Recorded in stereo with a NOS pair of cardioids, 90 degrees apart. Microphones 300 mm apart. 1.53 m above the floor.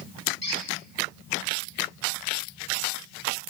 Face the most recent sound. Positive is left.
turn(degrees=35)